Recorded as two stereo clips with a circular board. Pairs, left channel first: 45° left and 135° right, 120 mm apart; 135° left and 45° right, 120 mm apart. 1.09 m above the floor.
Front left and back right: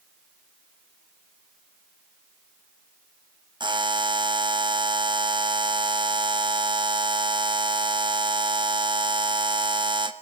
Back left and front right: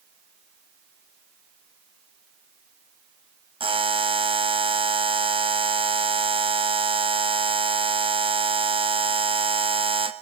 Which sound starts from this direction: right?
A buzzer, at 3.6 s.